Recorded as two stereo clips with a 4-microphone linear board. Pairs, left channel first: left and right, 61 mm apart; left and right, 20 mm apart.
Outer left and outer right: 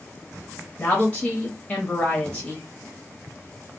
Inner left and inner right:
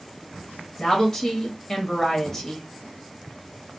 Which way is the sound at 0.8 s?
20° left (ahead or behind).